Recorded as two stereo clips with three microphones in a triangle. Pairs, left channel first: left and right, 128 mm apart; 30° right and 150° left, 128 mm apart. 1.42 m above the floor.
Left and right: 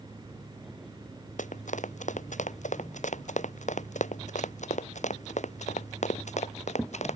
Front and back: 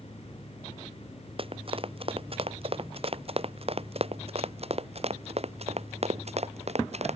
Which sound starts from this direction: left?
Running footsteps, at 1.4 s.